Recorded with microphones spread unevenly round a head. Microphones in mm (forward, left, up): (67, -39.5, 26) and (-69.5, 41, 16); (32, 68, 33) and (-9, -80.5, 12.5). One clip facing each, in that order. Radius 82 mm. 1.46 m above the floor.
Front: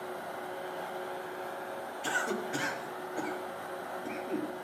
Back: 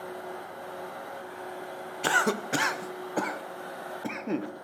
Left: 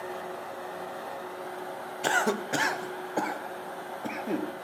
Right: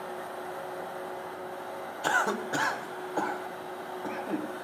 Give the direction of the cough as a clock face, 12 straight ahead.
7 o'clock.